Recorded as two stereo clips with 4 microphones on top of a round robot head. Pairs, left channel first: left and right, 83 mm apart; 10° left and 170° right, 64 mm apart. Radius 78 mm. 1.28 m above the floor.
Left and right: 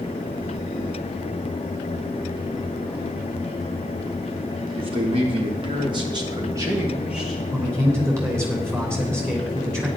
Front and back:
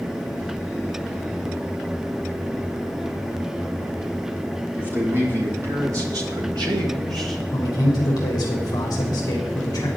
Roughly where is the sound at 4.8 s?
Right.